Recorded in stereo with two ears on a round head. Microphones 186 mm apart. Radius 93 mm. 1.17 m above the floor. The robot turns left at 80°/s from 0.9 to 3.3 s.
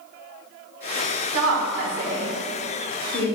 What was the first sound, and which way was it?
A woman speaking, 80° right.